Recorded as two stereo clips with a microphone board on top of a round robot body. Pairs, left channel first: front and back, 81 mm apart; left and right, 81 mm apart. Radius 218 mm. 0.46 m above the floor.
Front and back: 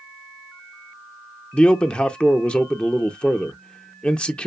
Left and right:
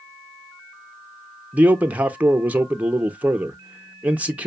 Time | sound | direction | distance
1.5 | a man speaking | 55° right | 0.9 m